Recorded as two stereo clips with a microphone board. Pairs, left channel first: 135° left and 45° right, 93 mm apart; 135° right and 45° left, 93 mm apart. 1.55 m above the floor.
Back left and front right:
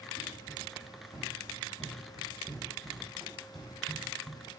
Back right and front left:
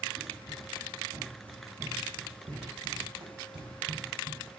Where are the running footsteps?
40° left, 7.5 m; by 4.5 s 55° left, 3 m.